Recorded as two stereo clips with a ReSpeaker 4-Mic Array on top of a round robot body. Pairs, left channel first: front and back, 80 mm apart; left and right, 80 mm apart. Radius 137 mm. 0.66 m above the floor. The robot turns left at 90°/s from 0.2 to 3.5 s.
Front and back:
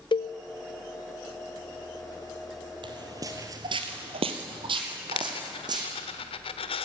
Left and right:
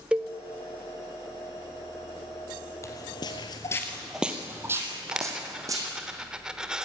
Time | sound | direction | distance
0.1 | a cowbell | 15° right | 0.6 m
2.8 | footsteps | 150° left | 1.5 m
5.1 | a dropped coin | 10° right | 0.8 m